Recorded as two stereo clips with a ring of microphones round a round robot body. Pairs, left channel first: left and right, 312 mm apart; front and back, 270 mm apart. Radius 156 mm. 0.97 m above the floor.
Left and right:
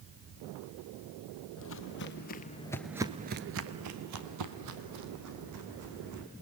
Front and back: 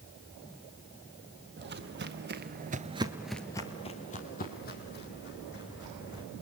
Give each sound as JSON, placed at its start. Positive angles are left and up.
{"t": 1.6, "sound": "footsteps", "azimuth_deg": 135, "distance_m": 2.0}